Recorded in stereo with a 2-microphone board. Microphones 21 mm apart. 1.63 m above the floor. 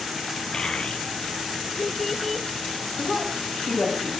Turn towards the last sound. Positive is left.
turn(degrees=5)  # may be behind; listen again after turning